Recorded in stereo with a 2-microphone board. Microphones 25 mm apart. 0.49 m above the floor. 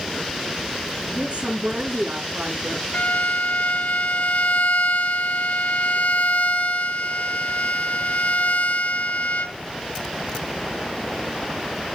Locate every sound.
1.1 s a woman speaking: 70° right (ahead or behind), 6.5 m; by 2.8 s 65° right (ahead or behind), 7.5 m
2.9 s a violin: 70° left (ahead or behind), 0.9 m